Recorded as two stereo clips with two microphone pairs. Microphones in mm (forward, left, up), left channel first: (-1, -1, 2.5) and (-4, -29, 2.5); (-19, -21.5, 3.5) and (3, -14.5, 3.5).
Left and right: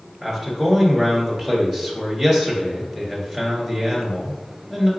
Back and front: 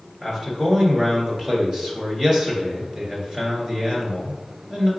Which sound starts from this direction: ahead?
A man speaking, at 0.2 s.